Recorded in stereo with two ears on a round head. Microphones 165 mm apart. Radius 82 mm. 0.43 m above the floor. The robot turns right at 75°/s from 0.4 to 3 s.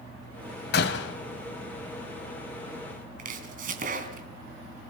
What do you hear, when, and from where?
0.7 s a door slam: 65° left, 2.5 m; by 1.1 s 95° left, 2.5 m
3.2 s chopping: 45° right (ahead or behind), 3.5 m